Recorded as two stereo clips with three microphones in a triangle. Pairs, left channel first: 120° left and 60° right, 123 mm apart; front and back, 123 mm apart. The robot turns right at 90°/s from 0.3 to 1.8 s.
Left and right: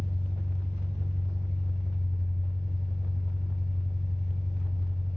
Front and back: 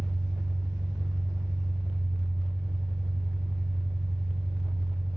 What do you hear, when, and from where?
0.0 s an engine running: 80° left, 2.5 m; by 5.2 s 145° right, 2.5 m